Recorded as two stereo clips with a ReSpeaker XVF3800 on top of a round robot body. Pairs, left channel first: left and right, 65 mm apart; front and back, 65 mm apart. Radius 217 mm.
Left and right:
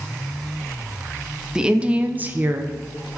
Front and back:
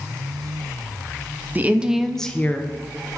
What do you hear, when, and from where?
1.6 s a woman speaking: 160° right, 0.7 m; by 2.7 s 45° right, 0.8 m